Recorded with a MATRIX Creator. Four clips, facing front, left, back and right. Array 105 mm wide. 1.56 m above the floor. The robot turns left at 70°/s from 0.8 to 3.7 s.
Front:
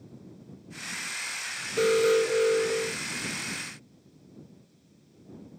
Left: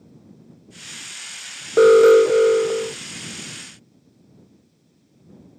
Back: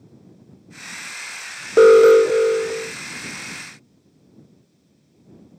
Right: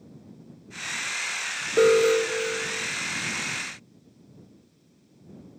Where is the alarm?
160° left; by 3.0 s 75° left.